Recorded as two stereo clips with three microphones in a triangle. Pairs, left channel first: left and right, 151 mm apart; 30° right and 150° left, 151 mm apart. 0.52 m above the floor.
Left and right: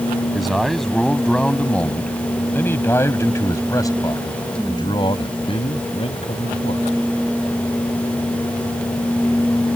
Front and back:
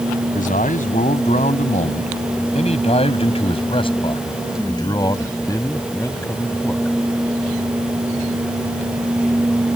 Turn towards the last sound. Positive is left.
turn(degrees=50)